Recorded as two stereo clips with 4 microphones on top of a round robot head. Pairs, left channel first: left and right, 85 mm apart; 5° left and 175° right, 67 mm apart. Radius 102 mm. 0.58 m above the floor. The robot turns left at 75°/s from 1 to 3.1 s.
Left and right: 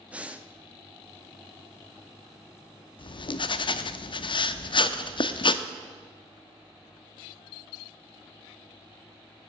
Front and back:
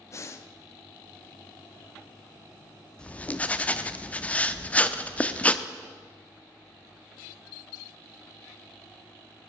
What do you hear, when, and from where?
0.1 s breathing: 20° right, 0.9 m
3.0 s writing: 80° left, 0.7 m; by 5.7 s 75° left, 0.7 m